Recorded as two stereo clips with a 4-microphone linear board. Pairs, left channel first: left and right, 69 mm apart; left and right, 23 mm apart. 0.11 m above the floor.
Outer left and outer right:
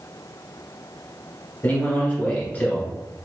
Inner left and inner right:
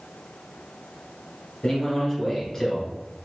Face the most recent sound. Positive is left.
turn(degrees=25)  # may be behind; listen again after turning